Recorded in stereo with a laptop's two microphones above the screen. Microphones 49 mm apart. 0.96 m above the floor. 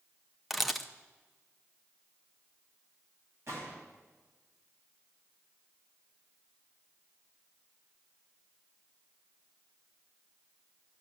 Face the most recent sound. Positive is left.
turn(degrees=-60)  # may be behind; listen again after turning